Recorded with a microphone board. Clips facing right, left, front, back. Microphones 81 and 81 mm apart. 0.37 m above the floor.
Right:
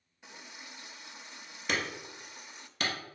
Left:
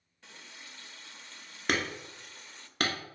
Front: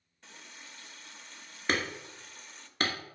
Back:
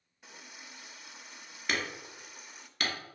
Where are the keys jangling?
No keys jangling in this recording.